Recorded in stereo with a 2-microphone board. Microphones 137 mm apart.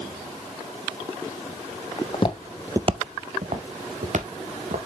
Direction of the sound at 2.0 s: 45° left (ahead or behind).